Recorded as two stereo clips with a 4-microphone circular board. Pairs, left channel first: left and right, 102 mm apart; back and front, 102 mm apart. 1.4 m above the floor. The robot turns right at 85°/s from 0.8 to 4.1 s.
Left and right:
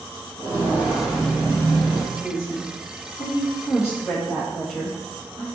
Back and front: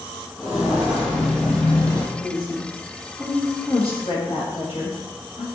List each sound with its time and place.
0.4 s footsteps: 90° right, 1.5 m; by 2.0 s 160° left, 1.7 m
2.1 s a woman speaking: 10° left, 1.5 m; by 5.4 s 175° left, 1.5 m